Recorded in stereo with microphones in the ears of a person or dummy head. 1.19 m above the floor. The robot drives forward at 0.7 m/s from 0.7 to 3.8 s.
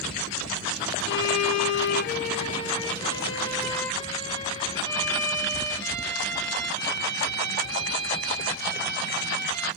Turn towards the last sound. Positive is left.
turn(degrees=15)  # may be behind; listen again after turning